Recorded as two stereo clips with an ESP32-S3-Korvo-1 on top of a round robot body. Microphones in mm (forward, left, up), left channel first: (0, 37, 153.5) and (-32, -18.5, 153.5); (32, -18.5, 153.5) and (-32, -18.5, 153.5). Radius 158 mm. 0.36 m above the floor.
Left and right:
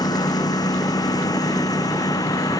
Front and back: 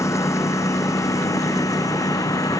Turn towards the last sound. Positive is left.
turn(degrees=35)